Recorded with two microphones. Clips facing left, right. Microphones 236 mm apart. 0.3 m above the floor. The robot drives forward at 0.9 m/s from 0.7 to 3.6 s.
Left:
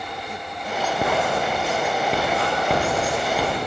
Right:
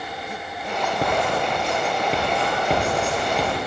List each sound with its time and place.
1.0 s writing: centre (ahead or behind), 3 m